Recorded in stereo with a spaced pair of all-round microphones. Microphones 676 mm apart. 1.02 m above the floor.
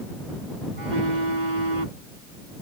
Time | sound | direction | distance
0.7 | a phone buzzing | 85° right | ?